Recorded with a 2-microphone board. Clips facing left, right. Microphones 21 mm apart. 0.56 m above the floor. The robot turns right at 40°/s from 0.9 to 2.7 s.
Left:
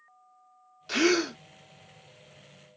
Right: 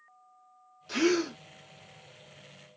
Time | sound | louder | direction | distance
0.9 | a gasp | left 2 dB | 30° left (ahead or behind) | 0.5 m